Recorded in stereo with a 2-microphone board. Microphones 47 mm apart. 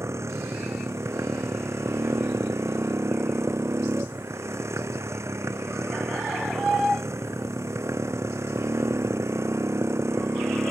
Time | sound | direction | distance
0.0 | a motorcycle | 80° right | ?